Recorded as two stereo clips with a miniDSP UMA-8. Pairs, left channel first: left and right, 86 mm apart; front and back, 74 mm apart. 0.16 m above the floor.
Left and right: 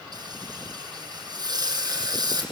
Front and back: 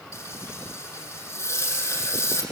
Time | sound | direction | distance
0.1 | frying | 50° right | 5.5 m